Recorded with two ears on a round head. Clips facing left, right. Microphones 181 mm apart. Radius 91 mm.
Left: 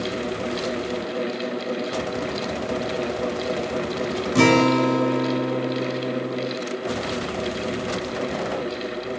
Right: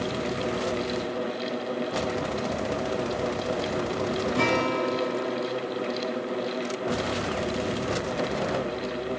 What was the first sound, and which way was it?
A guitar, 60° left (ahead or behind).